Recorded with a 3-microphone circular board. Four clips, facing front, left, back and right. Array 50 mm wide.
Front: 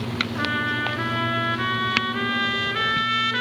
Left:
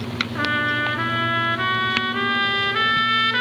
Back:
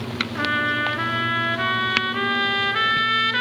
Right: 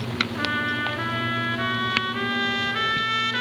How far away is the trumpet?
About 1.4 m.